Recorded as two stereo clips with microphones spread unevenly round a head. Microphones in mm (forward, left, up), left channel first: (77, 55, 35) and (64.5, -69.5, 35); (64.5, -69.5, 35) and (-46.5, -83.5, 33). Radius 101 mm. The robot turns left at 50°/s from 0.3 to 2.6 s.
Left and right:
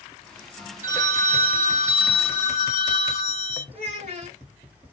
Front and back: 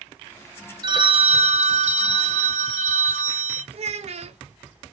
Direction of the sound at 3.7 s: 155° right.